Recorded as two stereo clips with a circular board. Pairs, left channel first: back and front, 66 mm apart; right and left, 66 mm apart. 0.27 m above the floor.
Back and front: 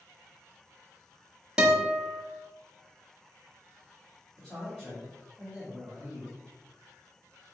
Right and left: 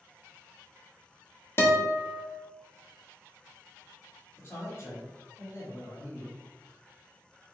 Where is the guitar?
70° right, 1.1 m.